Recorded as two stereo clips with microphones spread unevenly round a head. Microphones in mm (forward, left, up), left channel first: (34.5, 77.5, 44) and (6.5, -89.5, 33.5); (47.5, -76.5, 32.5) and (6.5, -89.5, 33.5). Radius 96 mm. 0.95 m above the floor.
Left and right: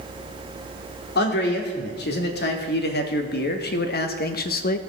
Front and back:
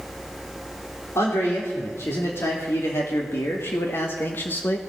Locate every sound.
1.1 s a man speaking: 55° left, 3 m; by 4.8 s 60° left, 1.1 m